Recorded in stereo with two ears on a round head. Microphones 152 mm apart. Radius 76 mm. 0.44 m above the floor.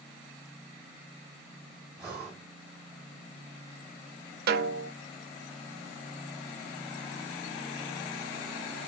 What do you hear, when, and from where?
2.0 s breathing: 15° right (ahead or behind), 2.5 m
4.5 s a snare drum: 65° right (ahead or behind), 0.5 m